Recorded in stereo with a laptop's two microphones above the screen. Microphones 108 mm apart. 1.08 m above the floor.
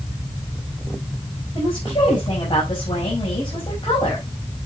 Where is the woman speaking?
50° left (ahead or behind), 6.5 m.